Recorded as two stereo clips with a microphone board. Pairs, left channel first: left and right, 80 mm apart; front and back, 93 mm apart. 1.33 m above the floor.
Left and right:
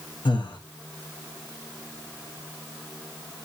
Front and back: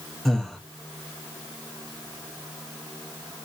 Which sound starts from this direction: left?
Breathing, at 0.2 s.